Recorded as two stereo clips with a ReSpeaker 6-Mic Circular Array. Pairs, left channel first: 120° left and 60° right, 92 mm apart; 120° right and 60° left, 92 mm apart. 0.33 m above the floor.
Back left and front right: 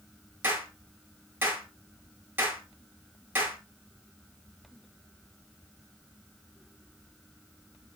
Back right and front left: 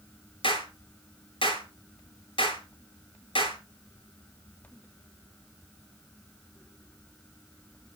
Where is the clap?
130° right, 5.5 m.